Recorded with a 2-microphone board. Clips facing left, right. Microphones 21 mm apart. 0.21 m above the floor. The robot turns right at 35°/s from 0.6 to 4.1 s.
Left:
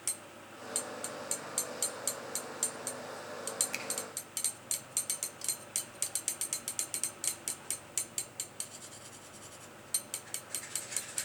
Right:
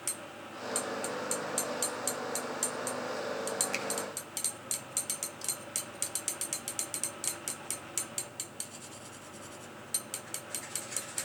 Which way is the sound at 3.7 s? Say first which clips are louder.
Right 4 dB; 10° right (ahead or behind).